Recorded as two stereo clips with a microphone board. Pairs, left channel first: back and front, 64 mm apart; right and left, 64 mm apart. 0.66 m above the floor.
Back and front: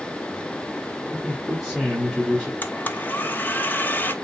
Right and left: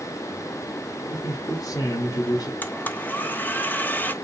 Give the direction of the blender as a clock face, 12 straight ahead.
5 o'clock.